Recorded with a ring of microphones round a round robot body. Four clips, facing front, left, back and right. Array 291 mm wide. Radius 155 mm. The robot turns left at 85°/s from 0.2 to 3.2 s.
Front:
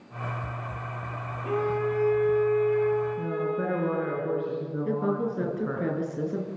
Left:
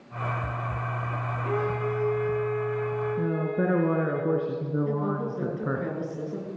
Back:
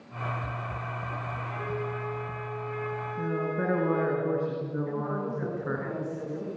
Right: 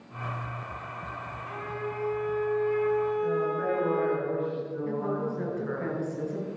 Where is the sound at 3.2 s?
100° left, 5 m; by 5.8 s 95° left, 5 m.